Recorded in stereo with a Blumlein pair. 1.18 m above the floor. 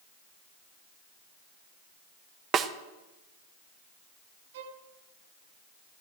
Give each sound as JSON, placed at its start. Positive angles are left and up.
{"t": 2.5, "sound": "a snare drum", "azimuth_deg": -25, "distance_m": 1.1}
{"t": 4.5, "sound": "a violin", "azimuth_deg": -55, "distance_m": 1.5}